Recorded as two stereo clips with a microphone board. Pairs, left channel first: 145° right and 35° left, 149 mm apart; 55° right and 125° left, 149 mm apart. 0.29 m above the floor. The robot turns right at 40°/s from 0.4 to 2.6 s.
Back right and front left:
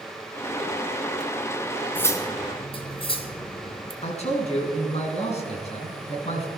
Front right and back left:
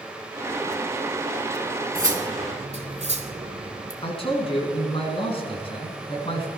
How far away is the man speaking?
About 3.5 m.